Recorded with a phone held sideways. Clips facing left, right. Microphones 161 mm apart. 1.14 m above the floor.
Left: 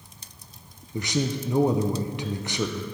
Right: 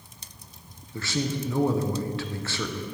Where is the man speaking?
15° left (ahead or behind), 0.6 m.